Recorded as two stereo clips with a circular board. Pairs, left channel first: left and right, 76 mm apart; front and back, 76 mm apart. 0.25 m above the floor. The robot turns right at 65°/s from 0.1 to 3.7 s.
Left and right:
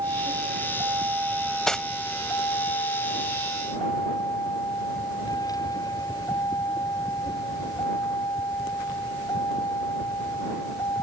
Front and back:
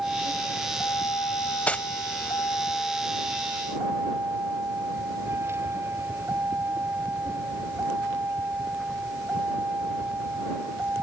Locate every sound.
0.0 s a vehicle: 100° right; by 11.0 s 120° left
1.7 s cutlery clinking: 20° left; by 1.9 s 35° left